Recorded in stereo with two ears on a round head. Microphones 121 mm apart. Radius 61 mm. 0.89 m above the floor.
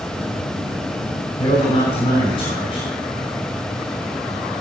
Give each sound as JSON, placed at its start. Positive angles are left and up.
{"t": 1.4, "sound": "a man speaking", "side_deg": 35, "distance_m": 5.0}